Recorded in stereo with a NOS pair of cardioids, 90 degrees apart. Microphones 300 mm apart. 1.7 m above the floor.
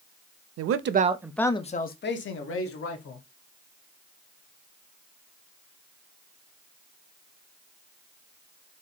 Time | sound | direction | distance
0.6 | a man speaking | 55° right | 0.7 m